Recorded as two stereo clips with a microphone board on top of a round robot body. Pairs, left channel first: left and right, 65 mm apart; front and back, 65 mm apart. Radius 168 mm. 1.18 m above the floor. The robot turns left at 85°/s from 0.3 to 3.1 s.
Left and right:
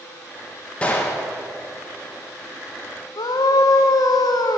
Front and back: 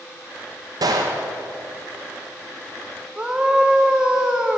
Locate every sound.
0.8 s a gunshot: 165° left, 0.8 m; by 1.3 s 125° left, 0.8 m
3.2 s a scream: 100° left, 0.8 m